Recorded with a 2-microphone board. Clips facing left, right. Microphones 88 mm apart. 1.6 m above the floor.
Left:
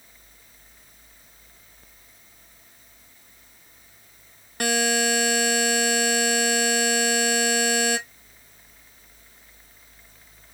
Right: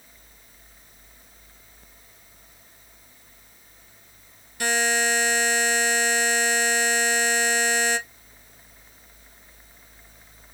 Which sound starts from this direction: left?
A buzzer, at 4.6 s.